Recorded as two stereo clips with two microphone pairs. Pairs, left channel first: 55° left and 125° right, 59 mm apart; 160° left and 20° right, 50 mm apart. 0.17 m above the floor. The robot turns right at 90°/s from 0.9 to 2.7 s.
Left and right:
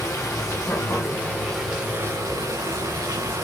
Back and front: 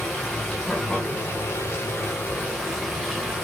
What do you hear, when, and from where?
0.0 s running water: 80° left, 4.5 m; by 3.4 s 120° right, 4.5 m